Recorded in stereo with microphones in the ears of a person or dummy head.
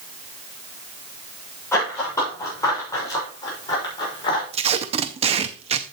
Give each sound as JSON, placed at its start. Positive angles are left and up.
{"t": 1.7, "sound": "running footsteps", "side_deg": 15, "distance_m": 7.0}
{"t": 4.5, "sound": "tape being pulled", "side_deg": -35, "distance_m": 0.6}